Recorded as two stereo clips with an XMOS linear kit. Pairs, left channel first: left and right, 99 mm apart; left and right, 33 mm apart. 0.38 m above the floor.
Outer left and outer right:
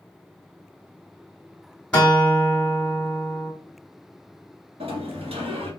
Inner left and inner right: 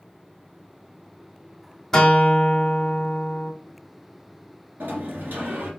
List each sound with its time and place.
1.9 s a guitar: 10° left (ahead or behind), 1.3 m
4.8 s a sliding door: 75° right (ahead or behind), 1.3 m